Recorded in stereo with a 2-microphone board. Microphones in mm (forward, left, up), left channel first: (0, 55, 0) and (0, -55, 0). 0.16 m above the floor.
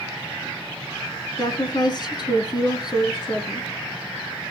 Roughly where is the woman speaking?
Left.